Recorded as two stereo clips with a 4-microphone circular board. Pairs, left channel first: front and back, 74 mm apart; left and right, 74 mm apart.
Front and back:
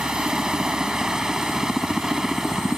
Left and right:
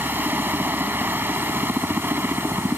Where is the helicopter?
110° right; by 2.8 s 105° right.